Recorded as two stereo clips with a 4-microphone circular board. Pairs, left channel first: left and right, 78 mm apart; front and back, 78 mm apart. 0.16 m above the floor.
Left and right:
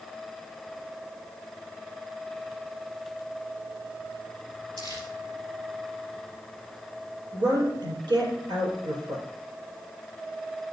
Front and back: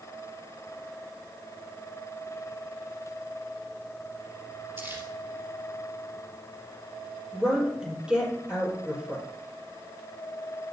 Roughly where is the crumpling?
Behind right.